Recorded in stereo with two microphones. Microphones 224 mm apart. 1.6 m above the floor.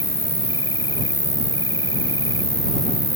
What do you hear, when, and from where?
0.0 s an insect: 20° right (ahead or behind)